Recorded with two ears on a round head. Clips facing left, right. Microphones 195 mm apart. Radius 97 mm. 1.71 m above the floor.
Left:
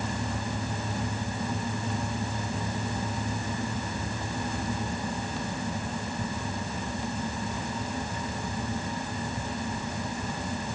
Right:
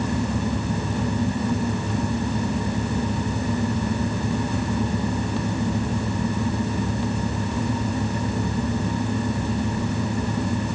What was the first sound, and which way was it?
Only background noise.